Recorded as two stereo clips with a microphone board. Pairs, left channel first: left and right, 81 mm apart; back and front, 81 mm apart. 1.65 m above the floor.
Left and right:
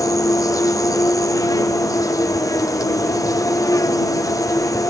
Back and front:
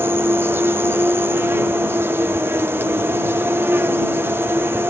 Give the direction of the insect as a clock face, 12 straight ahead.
10 o'clock.